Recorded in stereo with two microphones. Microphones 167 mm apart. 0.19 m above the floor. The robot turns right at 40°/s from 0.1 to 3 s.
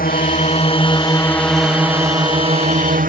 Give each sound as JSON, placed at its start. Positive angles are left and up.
{"t": 0.0, "sound": "a drone", "azimuth_deg": 120}